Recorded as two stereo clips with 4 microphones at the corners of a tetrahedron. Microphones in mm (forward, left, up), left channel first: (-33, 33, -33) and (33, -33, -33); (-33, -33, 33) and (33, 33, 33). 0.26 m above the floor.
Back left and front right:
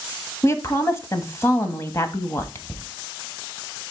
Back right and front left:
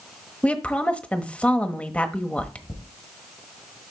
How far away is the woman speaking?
About 1.1 m.